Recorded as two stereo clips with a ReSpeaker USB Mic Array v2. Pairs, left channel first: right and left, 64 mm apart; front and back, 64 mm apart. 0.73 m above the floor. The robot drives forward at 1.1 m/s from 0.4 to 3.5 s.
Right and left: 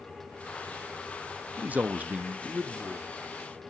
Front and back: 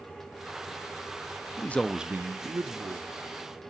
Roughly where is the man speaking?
Ahead left.